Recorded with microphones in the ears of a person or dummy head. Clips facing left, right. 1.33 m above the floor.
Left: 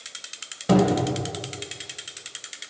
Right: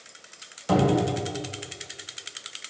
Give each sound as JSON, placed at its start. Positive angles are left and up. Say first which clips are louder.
{"t": 0.7, "sound": "a cupboard door", "louder": "left 2 dB", "side_deg": 35, "distance_m": 1.3}